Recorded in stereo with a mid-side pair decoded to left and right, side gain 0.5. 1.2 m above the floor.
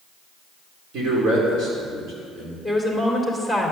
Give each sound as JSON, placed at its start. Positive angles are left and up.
{"t": 0.9, "sound": "a man speaking", "azimuth_deg": -65, "distance_m": 4.0}
{"t": 2.6, "sound": "a woman speaking", "azimuth_deg": -10, "distance_m": 3.0}